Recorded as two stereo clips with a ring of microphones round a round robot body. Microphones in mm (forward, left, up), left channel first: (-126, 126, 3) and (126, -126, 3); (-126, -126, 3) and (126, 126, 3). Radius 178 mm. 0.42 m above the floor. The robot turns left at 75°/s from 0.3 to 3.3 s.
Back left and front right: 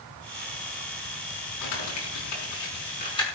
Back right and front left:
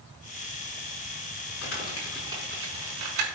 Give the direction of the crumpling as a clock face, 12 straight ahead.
6 o'clock.